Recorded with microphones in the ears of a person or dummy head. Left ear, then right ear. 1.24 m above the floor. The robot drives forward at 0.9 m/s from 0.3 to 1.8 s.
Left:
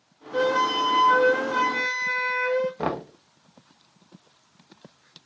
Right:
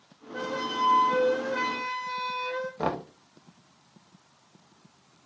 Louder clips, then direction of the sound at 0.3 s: Left 8 dB; 75° left (ahead or behind).